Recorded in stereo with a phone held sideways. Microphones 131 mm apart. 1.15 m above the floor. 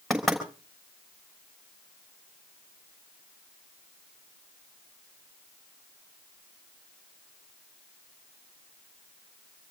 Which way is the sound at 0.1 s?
Centre (ahead or behind).